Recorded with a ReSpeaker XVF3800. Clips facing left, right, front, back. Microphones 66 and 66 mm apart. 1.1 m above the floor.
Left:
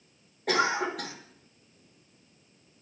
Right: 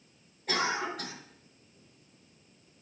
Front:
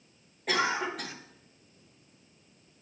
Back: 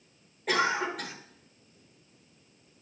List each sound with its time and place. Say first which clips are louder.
0.5 s a cough: left 5 dB, back 1 dB; 90° left, 1.0 m